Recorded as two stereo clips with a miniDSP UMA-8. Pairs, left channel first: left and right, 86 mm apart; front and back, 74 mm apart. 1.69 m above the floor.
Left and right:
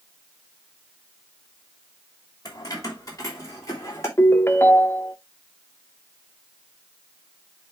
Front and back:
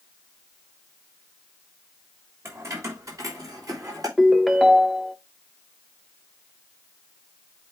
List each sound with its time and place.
2.5 s keys jangling: 130° left, 2.5 m; by 4.1 s 145° left, 4 m
4.2 s a ringtone: 90° left, 0.7 m